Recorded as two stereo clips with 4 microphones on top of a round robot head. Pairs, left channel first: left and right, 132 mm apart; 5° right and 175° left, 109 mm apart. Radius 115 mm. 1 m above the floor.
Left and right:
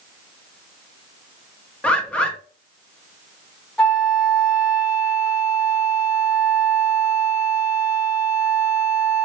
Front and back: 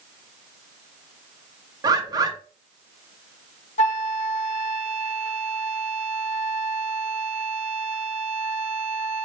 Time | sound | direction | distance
1.8 | a bird | 165° left | 0.7 m
3.8 | a flute | 5° left | 0.7 m